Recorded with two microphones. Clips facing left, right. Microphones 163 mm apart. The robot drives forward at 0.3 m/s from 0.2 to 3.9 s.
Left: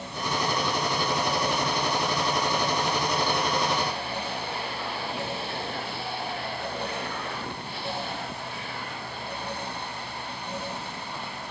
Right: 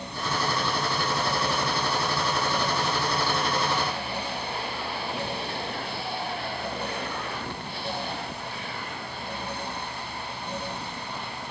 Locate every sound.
Only background noise.